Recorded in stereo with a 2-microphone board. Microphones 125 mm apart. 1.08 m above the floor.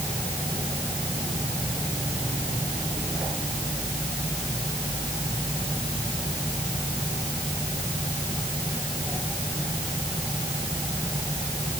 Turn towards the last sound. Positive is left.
No sound to turn to.